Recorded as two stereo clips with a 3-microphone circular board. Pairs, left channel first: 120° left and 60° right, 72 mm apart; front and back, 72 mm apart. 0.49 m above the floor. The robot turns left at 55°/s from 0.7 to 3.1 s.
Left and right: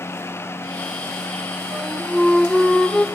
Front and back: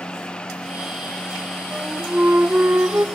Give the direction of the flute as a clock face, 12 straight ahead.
4 o'clock.